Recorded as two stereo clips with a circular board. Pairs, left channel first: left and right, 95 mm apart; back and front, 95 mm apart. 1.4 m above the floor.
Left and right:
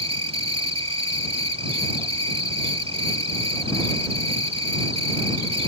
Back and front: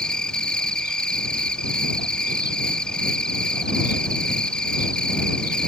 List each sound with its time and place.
0.0 s an insect: 100° right